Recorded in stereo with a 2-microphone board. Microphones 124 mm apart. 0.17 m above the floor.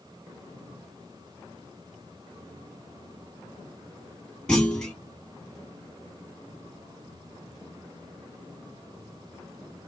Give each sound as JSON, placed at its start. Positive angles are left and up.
{"t": 4.5, "sound": "a clunk", "side_deg": 5, "distance_m": 1.1}